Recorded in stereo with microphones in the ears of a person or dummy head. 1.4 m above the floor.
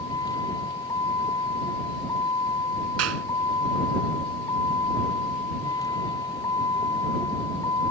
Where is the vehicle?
20° left (ahead or behind).